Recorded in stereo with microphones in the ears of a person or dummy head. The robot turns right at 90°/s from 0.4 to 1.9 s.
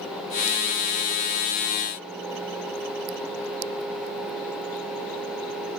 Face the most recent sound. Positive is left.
No sound to turn to.